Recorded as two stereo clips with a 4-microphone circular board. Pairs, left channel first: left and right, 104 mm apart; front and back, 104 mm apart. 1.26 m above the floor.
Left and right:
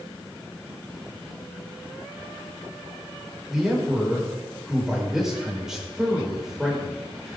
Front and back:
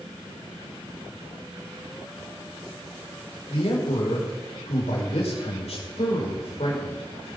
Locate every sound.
3.5 s a man speaking: 5° right, 6 m